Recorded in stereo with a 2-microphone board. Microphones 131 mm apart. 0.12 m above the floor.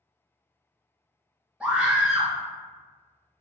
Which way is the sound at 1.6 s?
5° right (ahead or behind).